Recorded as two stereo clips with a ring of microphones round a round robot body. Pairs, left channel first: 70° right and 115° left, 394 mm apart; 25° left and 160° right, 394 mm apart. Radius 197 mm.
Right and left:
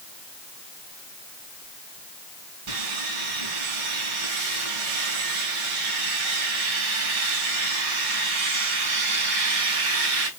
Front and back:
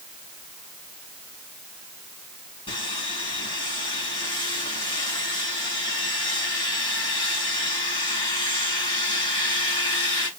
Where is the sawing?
100° left, 6 m.